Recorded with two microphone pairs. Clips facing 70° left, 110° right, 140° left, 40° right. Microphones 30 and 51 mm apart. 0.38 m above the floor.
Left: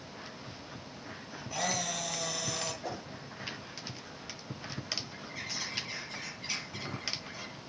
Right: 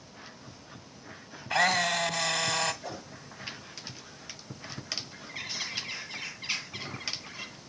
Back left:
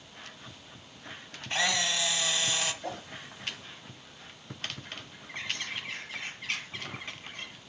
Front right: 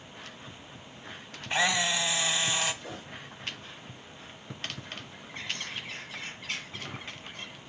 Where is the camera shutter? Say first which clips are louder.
Right 9 dB, front right 2 dB; 125° right, 1.6 m.